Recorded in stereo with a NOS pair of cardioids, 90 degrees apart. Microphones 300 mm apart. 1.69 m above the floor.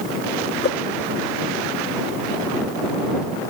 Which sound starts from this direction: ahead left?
A whoosh, at 0.6 s.